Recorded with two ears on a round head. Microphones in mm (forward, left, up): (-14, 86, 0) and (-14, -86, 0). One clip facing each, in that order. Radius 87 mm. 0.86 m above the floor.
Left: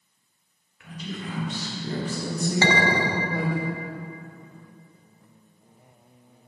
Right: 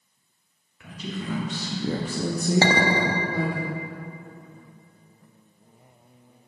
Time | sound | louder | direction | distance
0.8 | a woman speaking | right 2 dB | 75° right (ahead or behind) | 1.3 m
2.6 | a clink | left 2 dB | 30° right (ahead or behind) | 0.8 m